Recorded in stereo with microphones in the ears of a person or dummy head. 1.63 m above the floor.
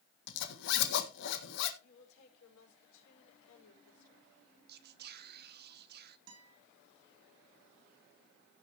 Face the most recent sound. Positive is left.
turn(degrees=-85)